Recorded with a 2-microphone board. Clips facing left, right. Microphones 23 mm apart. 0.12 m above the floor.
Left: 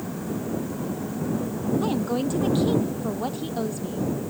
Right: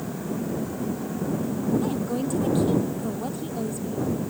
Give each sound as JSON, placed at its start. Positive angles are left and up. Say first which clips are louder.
{"t": 1.8, "sound": "a woman speaking", "louder": "left 2 dB", "side_deg": 35}